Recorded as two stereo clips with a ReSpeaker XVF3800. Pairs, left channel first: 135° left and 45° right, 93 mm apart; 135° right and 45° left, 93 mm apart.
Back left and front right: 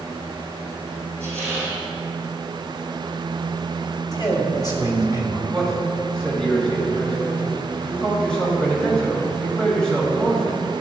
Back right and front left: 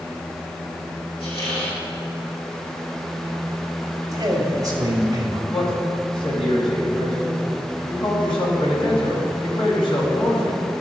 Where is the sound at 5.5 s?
145° right, 3 m.